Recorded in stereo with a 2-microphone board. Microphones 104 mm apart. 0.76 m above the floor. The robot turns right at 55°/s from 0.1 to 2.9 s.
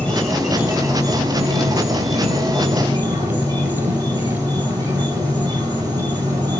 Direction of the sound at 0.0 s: 165° left.